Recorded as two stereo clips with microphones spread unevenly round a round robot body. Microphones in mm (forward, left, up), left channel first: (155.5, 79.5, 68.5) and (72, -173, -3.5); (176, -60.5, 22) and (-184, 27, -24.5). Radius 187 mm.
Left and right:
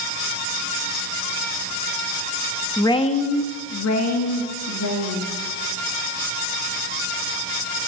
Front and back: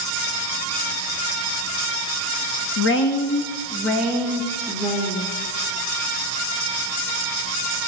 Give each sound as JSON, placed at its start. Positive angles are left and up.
{"t": 2.8, "sound": "a woman speaking", "azimuth_deg": -30, "distance_m": 0.6}